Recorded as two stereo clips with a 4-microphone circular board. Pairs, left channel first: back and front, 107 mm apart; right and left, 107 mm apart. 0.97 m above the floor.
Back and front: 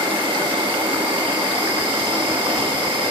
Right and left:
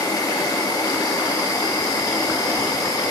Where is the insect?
40° right, 2 m.